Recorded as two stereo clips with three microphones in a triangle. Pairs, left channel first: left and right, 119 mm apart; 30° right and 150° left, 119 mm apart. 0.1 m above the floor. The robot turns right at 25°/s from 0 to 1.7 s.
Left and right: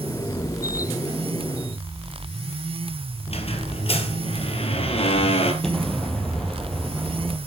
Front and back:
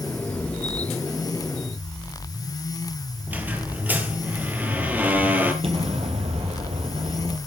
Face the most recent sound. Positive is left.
turn(degrees=175)